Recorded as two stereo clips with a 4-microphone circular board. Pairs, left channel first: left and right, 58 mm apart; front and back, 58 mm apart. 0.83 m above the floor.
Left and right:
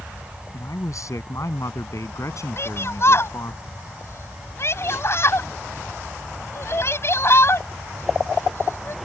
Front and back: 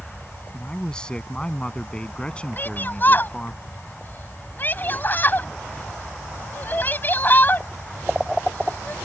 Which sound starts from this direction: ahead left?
A shout, at 2.6 s.